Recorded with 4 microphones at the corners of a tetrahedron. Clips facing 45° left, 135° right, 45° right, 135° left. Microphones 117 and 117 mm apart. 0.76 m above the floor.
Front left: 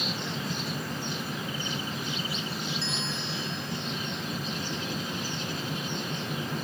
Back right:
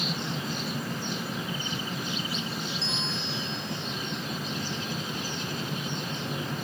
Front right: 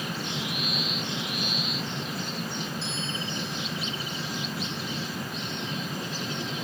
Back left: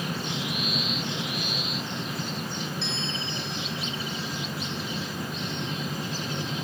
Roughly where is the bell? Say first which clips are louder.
Even, back left 1 dB; behind left.